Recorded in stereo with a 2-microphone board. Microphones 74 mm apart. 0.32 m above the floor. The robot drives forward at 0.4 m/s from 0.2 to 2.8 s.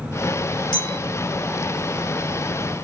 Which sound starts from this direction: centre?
A clink, at 0.7 s.